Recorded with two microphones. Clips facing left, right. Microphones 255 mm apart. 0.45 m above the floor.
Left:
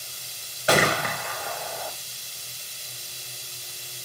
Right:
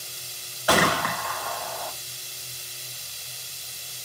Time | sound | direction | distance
0.7 | a gunshot | 25° left (ahead or behind) | 1.8 m